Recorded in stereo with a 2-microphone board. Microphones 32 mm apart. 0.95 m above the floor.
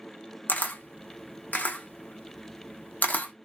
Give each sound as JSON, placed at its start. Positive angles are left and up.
{"t": 0.5, "sound": "a camera shutter", "side_deg": 55, "distance_m": 0.6}